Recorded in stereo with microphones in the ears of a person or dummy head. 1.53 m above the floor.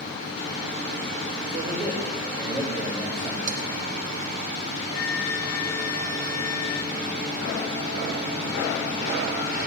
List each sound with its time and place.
1.5 s a man speaking: 40° right (ahead or behind), 3.5 m
3.5 s dishes clattering: 55° right (ahead or behind), 1.4 m
4.9 s a flute: 70° left (ahead or behind), 0.5 m